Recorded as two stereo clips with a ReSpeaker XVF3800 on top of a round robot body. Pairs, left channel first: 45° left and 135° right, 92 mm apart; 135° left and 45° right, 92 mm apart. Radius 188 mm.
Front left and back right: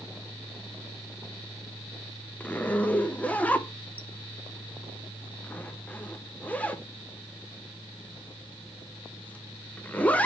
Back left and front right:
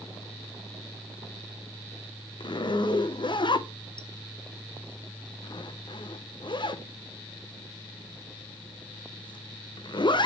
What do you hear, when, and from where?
2.4 s a zipper: 120° left, 0.9 m